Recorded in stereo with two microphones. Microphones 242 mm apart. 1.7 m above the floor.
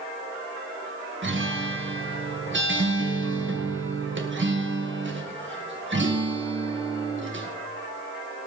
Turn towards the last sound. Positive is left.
turn(degrees=-55)  # may be behind; listen again after turning